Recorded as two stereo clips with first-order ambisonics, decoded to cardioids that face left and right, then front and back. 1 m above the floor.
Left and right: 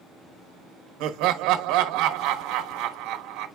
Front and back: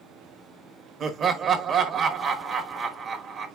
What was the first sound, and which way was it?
Laughter, 115° right.